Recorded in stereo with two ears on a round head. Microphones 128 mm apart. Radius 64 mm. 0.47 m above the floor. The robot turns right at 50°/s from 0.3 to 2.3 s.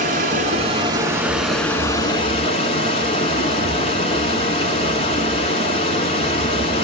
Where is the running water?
60° right, 1.3 m; by 6.8 s 40° left, 1.3 m.